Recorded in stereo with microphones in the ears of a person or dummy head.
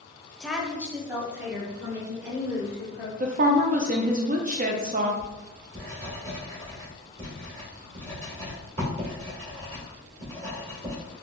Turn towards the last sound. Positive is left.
turn(degrees=-45)  # may be behind; listen again after turning